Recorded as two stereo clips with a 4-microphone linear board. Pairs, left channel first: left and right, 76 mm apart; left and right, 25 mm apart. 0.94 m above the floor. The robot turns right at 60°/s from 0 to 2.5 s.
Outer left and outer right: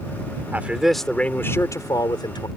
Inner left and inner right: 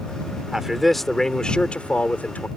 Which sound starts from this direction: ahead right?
A man speaking, at 0.5 s.